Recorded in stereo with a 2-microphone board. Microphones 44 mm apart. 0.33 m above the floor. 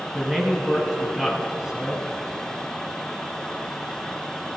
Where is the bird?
No bird in this recording.